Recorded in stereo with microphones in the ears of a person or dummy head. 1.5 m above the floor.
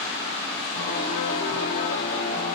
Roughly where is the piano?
Left.